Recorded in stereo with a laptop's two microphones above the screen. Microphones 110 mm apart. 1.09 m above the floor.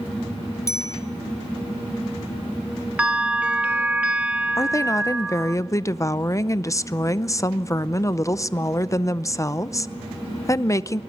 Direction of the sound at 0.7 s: 30° left (ahead or behind).